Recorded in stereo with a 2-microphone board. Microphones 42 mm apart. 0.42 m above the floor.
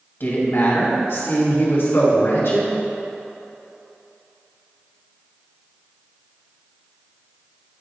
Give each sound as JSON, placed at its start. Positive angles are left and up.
{"t": 0.2, "sound": "a woman speaking", "side_deg": 60, "distance_m": 2.0}